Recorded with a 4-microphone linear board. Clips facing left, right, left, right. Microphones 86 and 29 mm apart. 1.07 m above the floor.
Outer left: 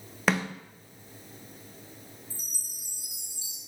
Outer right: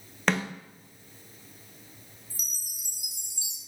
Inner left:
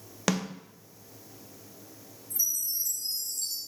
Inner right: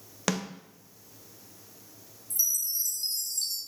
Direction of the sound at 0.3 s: 5° left (ahead or behind).